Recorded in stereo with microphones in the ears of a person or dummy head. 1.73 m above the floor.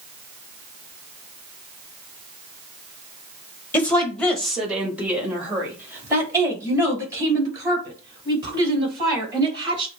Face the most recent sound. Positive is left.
turn(degrees=-25)  # may be behind; listen again after turning